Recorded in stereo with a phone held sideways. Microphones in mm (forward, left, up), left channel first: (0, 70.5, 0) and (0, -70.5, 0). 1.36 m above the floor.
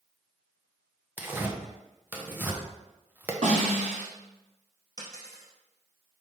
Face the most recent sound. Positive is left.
turn(degrees=-25)  # may be behind; listen again after turning